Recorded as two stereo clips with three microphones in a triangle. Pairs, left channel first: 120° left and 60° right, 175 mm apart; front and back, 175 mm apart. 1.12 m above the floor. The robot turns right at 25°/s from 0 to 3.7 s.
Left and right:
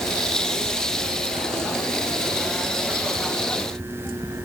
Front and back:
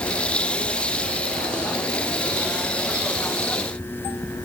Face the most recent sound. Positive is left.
No sound to turn to.